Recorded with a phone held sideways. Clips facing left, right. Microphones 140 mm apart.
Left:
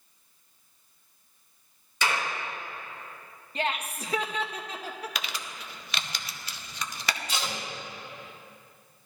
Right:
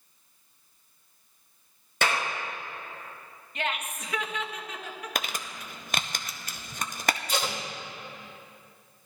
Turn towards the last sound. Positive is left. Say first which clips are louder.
# right 3 dB
turn(degrees=-55)  # may be behind; listen again after turning